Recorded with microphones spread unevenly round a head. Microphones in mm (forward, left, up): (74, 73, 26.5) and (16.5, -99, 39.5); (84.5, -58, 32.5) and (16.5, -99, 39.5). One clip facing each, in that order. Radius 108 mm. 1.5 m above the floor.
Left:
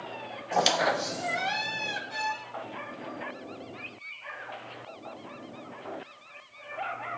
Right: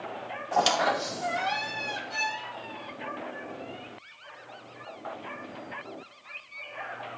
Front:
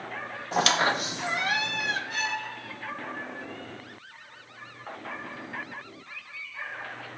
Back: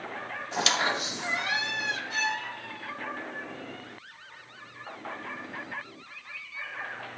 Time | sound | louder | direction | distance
0.5 | a squeak | even, front 4 dB | 5° right | 0.7 m
2.1 | a violin | left 1 dB, back 1 dB | 15° right | 3.5 m